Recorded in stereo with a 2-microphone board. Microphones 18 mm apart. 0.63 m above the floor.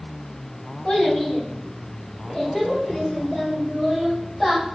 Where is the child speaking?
70° left (ahead or behind), 1.1 m; by 4.6 s 10° left (ahead or behind), 2.5 m.